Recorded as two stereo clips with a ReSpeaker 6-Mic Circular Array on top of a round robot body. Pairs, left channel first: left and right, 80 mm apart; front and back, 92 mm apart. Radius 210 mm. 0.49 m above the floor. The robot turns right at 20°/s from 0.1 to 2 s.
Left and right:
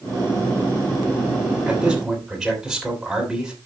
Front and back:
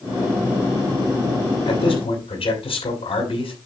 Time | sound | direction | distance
1.7 | a man speaking | 10° right | 5.5 m